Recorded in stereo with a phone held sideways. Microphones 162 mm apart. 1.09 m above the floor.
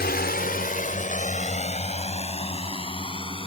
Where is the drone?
75° left (ahead or behind); by 3.5 s 35° left (ahead or behind).